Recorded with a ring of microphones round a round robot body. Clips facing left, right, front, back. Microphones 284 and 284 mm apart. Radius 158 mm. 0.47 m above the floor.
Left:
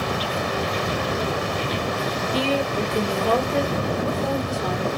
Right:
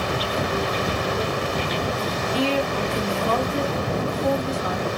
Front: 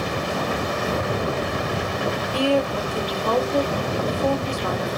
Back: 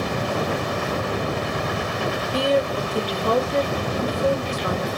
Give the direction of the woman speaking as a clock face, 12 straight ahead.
8 o'clock.